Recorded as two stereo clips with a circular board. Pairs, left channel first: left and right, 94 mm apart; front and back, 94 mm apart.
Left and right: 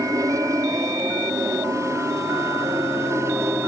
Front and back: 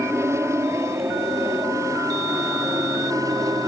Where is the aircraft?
130° right; by 3.7 s 140° right.